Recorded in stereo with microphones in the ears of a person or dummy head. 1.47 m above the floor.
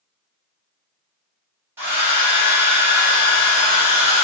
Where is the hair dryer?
15° right (ahead or behind), 1.0 m.